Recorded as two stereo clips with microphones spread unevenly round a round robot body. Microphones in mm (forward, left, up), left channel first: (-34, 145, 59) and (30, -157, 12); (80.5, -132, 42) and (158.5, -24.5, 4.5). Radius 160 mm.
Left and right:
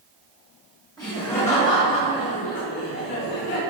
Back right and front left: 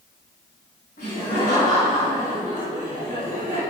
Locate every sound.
1.0 s laughter: 175° right, 2.5 m; by 3.6 s 145° left, 4 m